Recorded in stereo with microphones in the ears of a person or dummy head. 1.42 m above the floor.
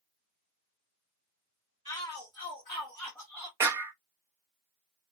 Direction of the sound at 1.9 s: 25° left (ahead or behind).